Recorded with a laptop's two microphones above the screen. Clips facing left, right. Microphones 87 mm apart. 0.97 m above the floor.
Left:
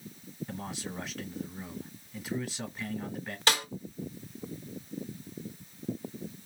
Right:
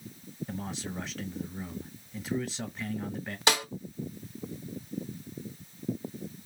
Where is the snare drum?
15° right (ahead or behind), 1.9 m.